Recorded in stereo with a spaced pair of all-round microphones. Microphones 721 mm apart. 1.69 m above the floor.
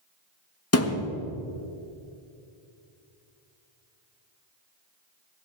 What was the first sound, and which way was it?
A thud, 20° left (ahead or behind).